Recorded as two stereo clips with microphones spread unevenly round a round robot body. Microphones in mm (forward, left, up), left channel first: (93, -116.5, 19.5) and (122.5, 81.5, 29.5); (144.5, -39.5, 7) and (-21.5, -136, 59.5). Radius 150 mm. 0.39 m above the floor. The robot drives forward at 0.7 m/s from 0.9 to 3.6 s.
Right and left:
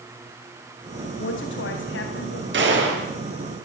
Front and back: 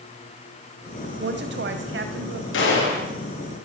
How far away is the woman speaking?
About 2.5 m.